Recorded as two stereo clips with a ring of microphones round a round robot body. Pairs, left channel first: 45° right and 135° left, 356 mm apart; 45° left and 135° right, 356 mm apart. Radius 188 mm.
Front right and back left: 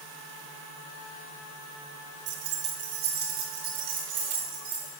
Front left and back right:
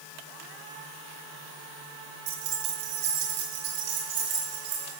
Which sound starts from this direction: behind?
Keys jangling, at 2.3 s.